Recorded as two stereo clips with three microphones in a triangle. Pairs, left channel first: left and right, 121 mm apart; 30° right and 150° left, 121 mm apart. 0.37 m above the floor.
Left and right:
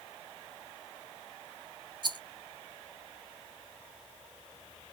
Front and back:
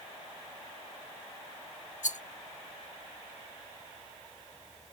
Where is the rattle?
35° right, 0.5 m.